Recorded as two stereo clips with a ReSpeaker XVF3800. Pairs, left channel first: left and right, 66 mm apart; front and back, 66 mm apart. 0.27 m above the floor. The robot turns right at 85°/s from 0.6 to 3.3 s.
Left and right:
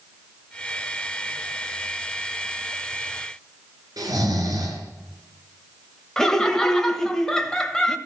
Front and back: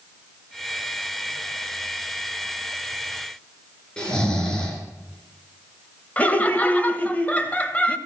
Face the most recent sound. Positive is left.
turn(degrees=20)